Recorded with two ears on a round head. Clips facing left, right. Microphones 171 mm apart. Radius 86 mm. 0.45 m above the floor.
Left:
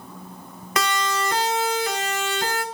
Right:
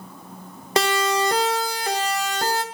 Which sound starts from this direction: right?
A siren, at 0.8 s.